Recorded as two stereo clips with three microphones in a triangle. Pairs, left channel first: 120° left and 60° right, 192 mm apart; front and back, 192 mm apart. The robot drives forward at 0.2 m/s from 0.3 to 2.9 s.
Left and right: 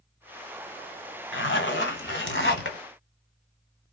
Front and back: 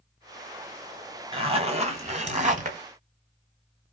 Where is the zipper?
120° left, 1.1 m; by 2.8 s 130° left, 1.2 m.